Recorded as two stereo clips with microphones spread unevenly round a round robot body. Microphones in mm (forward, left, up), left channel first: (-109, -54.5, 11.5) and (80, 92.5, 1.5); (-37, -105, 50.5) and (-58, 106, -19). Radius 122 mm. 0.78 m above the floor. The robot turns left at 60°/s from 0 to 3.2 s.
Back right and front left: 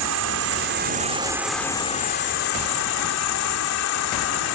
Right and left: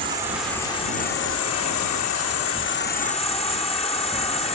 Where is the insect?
40° left; by 4.5 s 155° right.